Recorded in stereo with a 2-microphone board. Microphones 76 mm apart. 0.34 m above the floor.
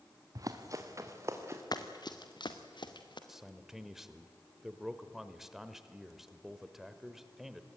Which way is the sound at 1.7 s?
60° left (ahead or behind).